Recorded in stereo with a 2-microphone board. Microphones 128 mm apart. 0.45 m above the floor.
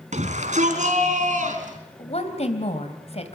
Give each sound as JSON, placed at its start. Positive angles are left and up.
{"t": 0.1, "sound": "a shout", "side_deg": -70, "distance_m": 4.5}
{"t": 2.0, "sound": "a woman speaking", "side_deg": 55, "distance_m": 3.0}